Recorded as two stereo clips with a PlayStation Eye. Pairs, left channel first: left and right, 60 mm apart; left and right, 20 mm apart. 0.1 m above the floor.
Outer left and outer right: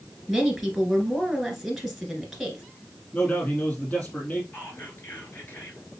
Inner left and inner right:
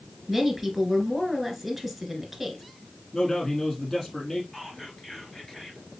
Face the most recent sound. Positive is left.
turn(degrees=35)  # may be behind; listen again after turning